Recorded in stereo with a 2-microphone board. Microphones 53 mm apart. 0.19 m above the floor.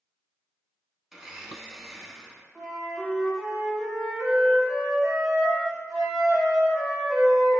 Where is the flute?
Centre (ahead or behind), 1.3 m.